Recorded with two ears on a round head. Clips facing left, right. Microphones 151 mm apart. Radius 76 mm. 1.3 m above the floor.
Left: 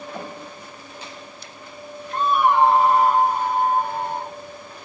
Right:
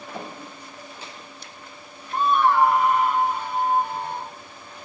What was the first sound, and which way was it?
A scream, 15° right (ahead or behind).